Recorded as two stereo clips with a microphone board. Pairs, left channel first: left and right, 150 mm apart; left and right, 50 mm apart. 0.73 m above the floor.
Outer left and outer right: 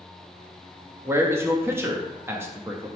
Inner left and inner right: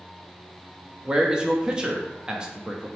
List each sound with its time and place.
1.1 s a man speaking: 15° right (ahead or behind), 0.7 m